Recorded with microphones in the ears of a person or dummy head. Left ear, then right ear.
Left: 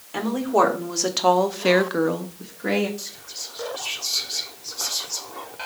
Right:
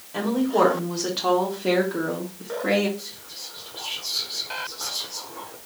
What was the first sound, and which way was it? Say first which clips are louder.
A woman speaking: left 1 dB; 60° left (ahead or behind).